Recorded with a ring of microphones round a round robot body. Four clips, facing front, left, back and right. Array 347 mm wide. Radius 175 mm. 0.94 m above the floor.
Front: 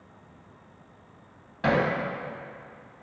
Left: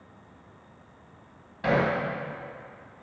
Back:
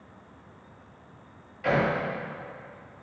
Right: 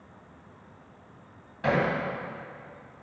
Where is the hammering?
Straight ahead, 2.5 m.